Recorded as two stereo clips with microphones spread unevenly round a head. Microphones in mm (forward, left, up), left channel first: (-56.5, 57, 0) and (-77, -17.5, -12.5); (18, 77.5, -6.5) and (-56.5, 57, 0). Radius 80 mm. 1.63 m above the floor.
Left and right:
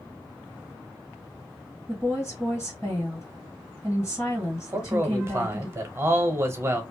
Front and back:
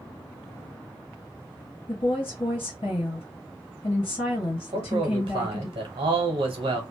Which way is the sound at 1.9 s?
15° right.